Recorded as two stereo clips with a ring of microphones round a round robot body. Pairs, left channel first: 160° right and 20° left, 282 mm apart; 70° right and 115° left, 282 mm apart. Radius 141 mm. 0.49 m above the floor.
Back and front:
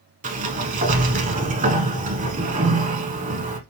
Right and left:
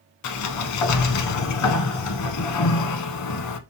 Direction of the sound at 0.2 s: 40° right.